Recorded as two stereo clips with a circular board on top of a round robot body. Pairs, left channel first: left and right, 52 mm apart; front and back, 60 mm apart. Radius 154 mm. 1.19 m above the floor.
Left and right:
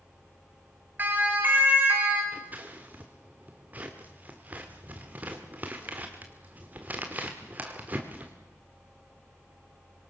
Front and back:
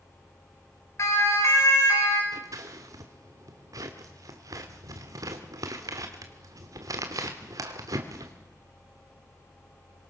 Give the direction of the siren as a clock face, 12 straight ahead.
1 o'clock.